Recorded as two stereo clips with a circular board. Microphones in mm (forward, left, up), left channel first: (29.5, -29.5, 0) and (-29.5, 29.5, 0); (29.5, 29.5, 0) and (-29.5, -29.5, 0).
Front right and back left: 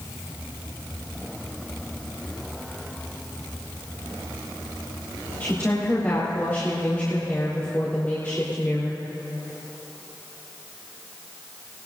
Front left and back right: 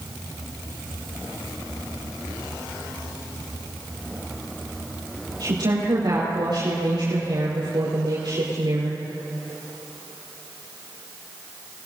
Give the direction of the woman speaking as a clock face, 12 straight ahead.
4 o'clock.